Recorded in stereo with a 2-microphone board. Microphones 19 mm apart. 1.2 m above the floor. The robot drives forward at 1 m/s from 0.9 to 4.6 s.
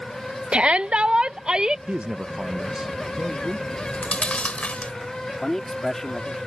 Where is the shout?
70° right (ahead or behind); by 1.8 s 45° right (ahead or behind).